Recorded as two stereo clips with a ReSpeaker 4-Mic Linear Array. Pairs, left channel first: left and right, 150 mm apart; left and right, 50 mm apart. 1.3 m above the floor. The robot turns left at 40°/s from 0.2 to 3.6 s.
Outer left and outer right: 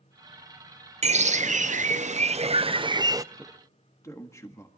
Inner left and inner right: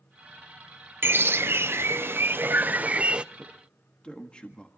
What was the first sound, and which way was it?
A bird, 65° right.